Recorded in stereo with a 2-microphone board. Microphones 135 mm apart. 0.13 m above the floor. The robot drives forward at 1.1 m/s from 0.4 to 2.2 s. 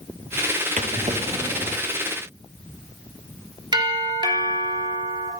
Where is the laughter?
I don't hear laughter.